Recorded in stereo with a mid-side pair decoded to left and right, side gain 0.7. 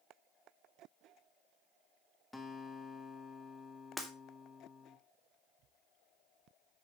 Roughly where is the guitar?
Ahead.